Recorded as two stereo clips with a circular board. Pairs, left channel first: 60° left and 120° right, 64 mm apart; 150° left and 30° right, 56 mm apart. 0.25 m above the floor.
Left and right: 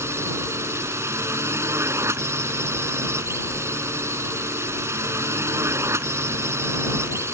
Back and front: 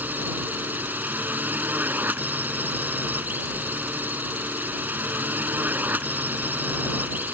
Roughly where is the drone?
Right.